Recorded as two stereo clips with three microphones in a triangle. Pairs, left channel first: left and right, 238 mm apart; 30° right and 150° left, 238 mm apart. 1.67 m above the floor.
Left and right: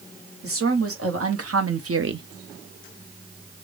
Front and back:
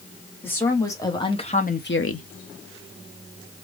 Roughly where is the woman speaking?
Right.